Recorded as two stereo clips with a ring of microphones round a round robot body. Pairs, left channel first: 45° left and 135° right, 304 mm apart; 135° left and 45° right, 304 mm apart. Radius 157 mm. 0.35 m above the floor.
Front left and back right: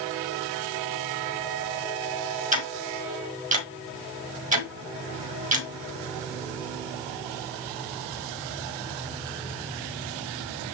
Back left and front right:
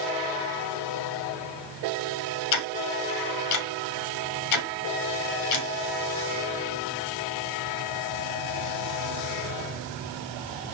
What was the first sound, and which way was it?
Ticking, 160° left.